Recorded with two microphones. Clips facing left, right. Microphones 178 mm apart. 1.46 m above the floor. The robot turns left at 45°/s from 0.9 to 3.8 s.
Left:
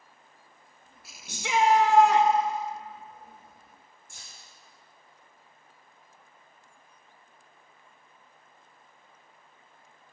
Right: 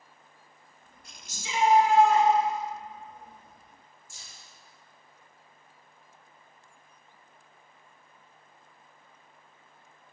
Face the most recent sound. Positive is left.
turn(degrees=55)  # may be behind; listen again after turning